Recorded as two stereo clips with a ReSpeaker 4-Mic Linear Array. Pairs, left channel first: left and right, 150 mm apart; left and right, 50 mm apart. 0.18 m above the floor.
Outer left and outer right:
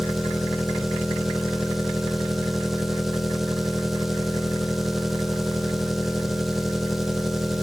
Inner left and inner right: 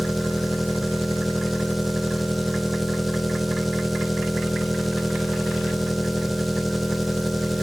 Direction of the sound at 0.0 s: Centre (ahead or behind).